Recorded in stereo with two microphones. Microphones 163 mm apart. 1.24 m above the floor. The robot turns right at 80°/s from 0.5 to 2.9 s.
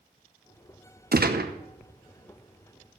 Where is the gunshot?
110° right, 0.9 m; by 1.5 s 80° right, 0.9 m.